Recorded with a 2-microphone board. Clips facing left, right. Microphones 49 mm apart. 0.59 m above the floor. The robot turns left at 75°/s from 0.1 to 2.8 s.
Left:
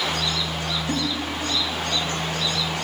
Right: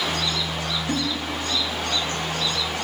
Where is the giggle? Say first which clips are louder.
Right 1 dB; centre (ahead or behind), 0.5 m; by 1.0 s 5° right (ahead or behind), 0.5 m.